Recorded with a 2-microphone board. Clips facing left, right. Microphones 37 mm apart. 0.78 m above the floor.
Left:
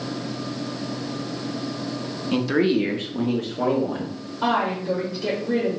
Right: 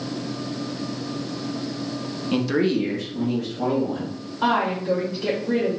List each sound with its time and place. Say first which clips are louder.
2.3 s a man speaking: left 1 dB; 5° right (ahead or behind), 0.6 m; by 4.2 s 65° left (ahead or behind), 1.1 m
4.4 s a woman speaking: right 1 dB; 25° right (ahead or behind), 1.4 m